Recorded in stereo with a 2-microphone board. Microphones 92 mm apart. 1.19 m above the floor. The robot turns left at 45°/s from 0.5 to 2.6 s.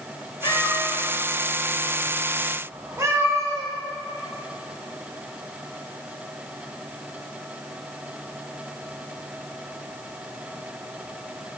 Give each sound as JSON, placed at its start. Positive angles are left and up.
{"t": 0.4, "sound": "a cat meowing", "side_deg": 50, "distance_m": 1.6}